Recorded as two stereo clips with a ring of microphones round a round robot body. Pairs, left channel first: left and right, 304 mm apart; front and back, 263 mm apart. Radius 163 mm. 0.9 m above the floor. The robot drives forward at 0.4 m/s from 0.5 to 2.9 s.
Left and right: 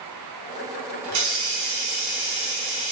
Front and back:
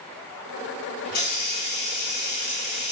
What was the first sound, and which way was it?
A hiss, 60° right.